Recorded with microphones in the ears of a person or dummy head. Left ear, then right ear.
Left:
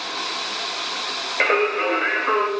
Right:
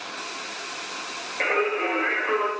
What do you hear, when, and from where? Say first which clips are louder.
1.4 s singing: left 4 dB; 50° left (ahead or behind), 2 m